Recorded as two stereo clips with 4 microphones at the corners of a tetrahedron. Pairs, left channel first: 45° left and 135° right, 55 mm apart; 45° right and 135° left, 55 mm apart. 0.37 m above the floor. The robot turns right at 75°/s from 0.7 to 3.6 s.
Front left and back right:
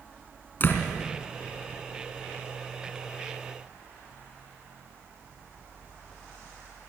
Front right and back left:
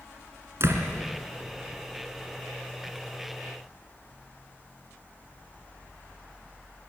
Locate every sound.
0.6 s a door slam: 100° left, 3 m; by 0.9 s 115° left, 3 m